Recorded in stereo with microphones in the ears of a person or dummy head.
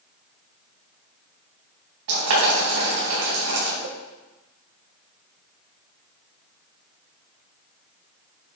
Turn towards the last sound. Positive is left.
turn(degrees=-65)  # may be behind; listen again after turning